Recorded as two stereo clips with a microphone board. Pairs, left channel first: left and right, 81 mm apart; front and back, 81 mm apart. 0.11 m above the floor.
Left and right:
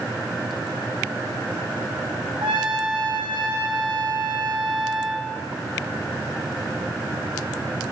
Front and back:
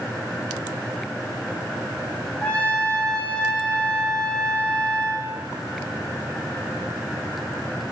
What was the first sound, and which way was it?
A trumpet, 75° right.